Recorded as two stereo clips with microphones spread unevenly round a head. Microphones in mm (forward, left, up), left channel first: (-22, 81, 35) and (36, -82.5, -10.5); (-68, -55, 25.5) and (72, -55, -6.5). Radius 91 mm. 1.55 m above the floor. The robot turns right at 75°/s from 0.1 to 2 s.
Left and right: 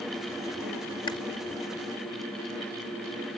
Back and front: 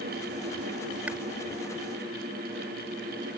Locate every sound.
1.1 s chewing: 95° left; by 1.2 s 105° left